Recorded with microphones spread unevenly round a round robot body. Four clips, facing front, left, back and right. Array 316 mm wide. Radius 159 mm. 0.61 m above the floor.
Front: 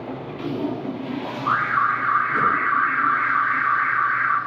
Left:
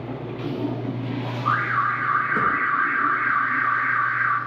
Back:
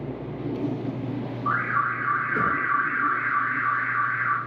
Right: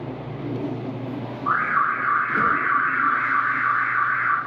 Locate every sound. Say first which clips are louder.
1.4 s an alarm: right 1 dB, front 5 dB; 120° left, 0.6 m